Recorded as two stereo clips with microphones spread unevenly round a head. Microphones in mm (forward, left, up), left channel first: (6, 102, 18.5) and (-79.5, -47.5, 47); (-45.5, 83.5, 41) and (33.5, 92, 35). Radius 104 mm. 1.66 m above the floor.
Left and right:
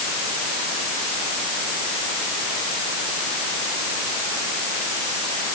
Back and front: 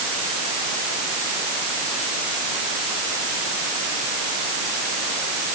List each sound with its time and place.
Only background noise.